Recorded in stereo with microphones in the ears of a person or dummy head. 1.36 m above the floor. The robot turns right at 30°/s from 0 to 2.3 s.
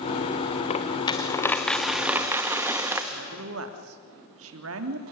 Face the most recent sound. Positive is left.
turn(degrees=-85)